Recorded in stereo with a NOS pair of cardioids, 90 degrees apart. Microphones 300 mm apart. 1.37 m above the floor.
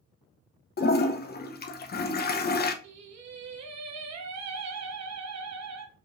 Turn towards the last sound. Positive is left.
turn(degrees=-60)